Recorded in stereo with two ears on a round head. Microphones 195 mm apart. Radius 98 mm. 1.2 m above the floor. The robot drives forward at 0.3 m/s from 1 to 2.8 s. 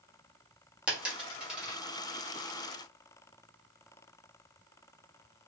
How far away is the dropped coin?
About 0.9 m.